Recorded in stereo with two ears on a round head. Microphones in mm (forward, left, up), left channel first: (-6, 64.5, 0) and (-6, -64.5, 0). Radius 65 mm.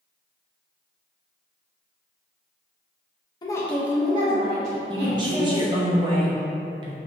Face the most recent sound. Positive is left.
turn(degrees=-35)  # may be behind; listen again after turning